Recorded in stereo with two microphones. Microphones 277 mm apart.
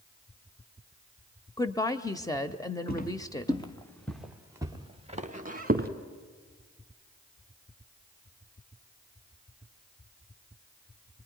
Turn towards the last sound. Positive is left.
turn(degrees=-35)  # may be behind; listen again after turning